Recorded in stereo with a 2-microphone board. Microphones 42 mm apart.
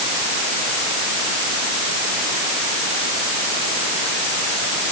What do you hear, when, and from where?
Only background noise.